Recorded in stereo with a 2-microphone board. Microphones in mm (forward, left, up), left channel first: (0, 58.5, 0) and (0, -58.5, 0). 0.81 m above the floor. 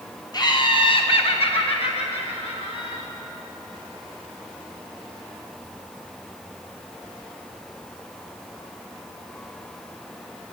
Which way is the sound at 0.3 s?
35° left (ahead or behind).